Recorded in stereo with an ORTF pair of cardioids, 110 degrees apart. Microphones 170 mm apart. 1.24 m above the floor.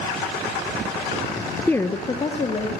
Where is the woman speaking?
5° left, 0.6 m; by 2.7 s 35° left, 1.8 m.